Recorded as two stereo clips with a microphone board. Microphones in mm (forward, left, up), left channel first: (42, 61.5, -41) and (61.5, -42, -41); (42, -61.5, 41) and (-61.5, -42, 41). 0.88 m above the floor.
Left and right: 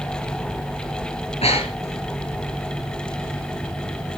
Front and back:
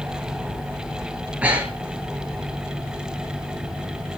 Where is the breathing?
90° left, 4.5 m.